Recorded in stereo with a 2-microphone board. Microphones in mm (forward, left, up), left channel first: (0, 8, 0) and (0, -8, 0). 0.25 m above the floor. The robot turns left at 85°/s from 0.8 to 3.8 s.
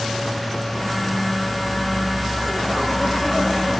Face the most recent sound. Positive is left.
No sound to turn to.